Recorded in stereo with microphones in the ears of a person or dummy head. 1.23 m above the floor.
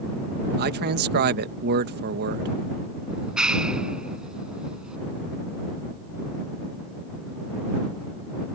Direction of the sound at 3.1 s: 5° right (ahead or behind).